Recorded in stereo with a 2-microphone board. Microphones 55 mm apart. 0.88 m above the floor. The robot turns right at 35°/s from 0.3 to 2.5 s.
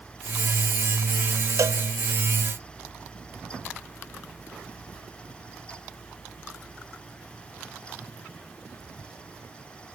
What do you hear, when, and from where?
1.6 s a cowbell: 80° right, 0.5 m; by 1.8 s 85° right, 0.5 m